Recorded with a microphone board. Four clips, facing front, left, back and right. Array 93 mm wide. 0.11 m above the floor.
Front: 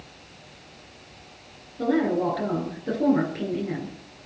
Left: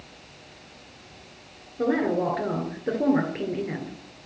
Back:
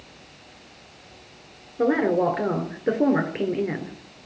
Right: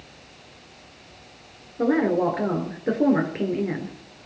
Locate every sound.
1.8 s a woman speaking: 160° right, 1.6 m